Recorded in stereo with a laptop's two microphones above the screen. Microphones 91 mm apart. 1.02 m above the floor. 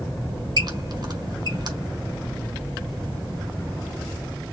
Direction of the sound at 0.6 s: 50° right (ahead or behind).